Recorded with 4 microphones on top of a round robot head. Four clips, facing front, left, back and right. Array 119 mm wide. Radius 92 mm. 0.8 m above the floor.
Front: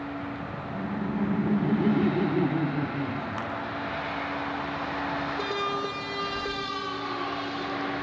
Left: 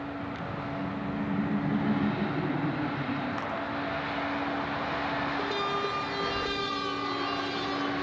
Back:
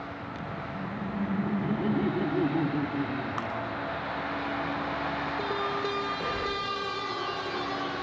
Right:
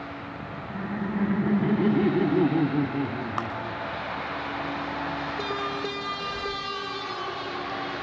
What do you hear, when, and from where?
0.7 s laughter: 50° right, 1.7 m; by 4.4 s 95° right, 3.5 m
3.4 s a clap: 100° right, 3.5 m
6.2 s breathing: 160° left, 3.5 m